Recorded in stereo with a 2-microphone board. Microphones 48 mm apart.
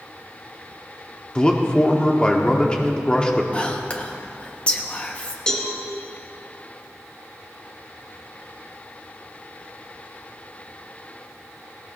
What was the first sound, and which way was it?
A man speaking, 20° left (ahead or behind).